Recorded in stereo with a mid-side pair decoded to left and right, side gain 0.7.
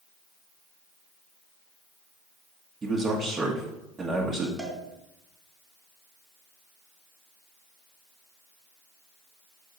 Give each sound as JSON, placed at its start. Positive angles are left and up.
{"t": 2.8, "sound": "a man speaking", "azimuth_deg": -25, "distance_m": 1.2}
{"t": 4.6, "sound": "a cowbell", "azimuth_deg": -10, "distance_m": 2.0}